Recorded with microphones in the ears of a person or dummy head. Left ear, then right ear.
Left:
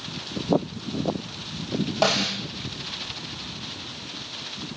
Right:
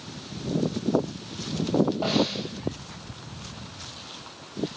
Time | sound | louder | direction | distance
2.0 | a snare drum | left 3 dB | 75° left (ahead or behind) | 7.5 m